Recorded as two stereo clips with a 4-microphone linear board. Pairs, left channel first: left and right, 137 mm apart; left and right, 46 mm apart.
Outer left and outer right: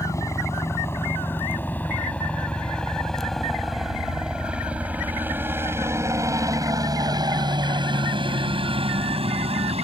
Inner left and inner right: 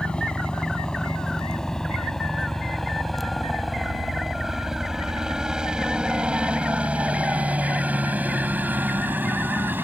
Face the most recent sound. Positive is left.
turn(degrees=-50)  # may be behind; listen again after turning